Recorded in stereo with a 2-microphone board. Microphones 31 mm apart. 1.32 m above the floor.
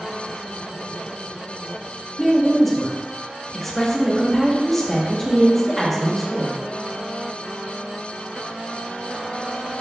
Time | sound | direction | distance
2.2 | a woman speaking | 10° left (ahead or behind) | 0.9 m